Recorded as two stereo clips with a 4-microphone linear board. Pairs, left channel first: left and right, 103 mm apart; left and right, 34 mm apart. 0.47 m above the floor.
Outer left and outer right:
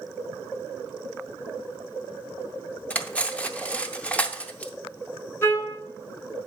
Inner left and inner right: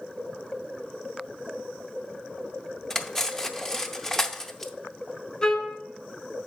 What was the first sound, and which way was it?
Cutlery clinking, 15° left (ahead or behind).